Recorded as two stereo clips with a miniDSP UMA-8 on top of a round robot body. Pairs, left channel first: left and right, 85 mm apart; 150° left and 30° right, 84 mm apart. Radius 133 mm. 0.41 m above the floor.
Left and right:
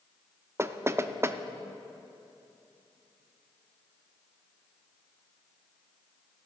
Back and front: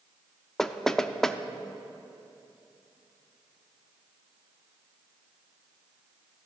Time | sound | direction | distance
0.6 | knocking | 130° right | 0.9 m